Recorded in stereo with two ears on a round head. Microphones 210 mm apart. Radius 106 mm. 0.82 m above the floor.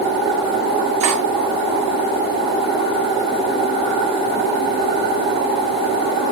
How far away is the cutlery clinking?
About 9.5 m.